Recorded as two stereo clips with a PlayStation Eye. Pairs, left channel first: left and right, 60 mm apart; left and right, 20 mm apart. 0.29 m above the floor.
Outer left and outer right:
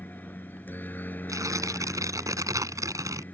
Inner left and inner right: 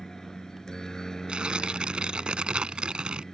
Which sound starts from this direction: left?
A helicopter, at 0.0 s.